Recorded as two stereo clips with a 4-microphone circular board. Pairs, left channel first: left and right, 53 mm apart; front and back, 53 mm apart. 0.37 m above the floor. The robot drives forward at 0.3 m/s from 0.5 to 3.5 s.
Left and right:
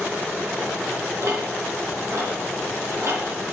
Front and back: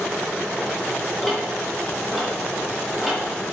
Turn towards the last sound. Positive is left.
turn(degrees=-105)